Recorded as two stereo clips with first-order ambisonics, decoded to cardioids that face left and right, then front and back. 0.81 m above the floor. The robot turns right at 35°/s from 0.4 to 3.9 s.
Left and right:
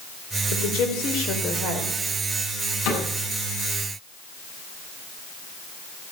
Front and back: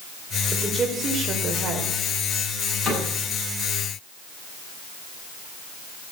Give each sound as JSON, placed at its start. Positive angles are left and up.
{"t": 0.5, "sound": "a woman speaking", "azimuth_deg": 95, "distance_m": 3.5}
{"t": 2.9, "sound": "a cupboard door", "azimuth_deg": 105, "distance_m": 8.0}